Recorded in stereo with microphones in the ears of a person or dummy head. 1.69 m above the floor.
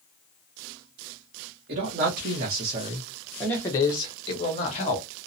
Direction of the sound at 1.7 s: 50° right (ahead or behind).